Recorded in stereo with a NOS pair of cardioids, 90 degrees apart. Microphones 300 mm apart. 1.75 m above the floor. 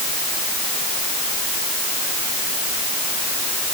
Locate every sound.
Only background noise.